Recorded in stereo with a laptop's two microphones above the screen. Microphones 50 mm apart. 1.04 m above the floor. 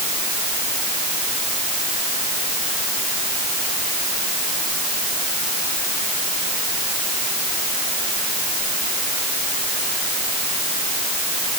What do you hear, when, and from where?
Only background noise.